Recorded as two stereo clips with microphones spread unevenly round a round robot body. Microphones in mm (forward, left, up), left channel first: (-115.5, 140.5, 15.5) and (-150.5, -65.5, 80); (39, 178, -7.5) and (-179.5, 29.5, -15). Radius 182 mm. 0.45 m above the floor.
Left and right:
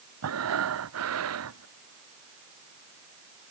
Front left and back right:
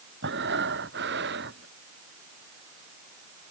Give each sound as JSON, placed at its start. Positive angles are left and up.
{"t": 0.2, "sound": "breathing", "azimuth_deg": -80}